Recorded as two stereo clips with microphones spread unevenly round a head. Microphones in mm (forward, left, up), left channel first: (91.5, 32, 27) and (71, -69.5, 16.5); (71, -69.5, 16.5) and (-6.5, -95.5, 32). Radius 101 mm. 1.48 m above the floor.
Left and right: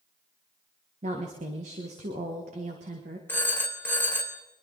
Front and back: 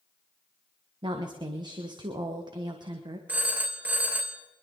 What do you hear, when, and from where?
1.0 s a woman speaking: 130° right, 1.4 m
3.3 s a phone ringing: 145° left, 0.8 m